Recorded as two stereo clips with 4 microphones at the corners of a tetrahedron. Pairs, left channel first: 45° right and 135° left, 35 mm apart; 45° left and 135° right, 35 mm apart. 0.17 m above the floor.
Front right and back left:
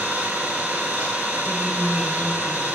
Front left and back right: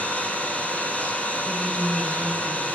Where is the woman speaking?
75° right, 3 m.